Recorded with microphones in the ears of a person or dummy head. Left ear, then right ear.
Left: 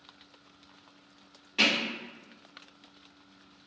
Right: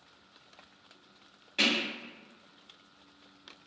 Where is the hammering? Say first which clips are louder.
Left 2 dB; 10° left (ahead or behind), 1.7 m.